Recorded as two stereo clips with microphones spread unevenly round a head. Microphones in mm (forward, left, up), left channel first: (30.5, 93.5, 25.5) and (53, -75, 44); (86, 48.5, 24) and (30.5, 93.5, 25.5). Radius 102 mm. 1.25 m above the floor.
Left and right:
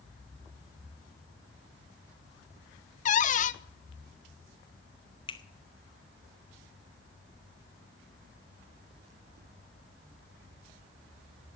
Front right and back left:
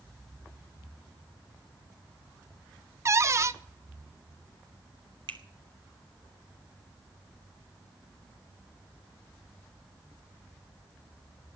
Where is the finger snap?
165° left, 0.8 m.